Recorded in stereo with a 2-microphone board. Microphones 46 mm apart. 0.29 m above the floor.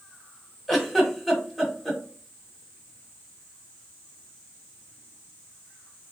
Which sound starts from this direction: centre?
A giggle, at 0.7 s.